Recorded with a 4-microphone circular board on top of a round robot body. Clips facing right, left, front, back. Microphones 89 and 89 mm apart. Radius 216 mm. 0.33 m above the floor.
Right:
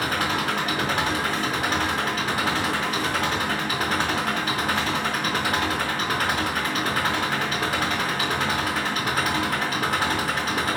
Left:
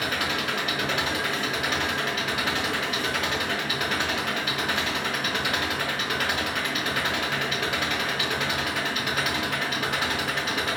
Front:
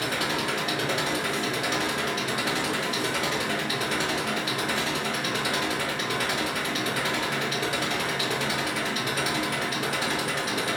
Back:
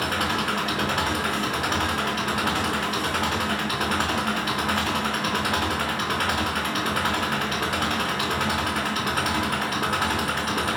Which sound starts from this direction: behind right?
An engine running, at 0.0 s.